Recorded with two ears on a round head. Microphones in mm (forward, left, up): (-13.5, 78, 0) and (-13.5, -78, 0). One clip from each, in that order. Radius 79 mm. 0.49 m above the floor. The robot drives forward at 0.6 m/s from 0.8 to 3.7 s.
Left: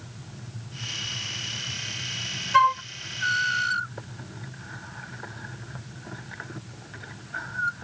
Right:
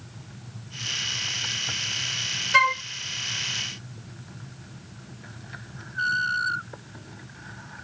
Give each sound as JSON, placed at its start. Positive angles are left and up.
{"t": 2.5, "sound": "a flute", "side_deg": -85}